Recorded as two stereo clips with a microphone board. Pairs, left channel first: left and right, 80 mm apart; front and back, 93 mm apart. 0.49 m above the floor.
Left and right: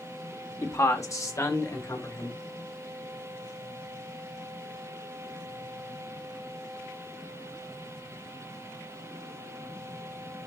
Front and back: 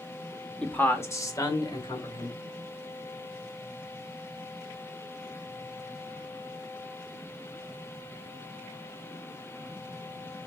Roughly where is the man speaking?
Left.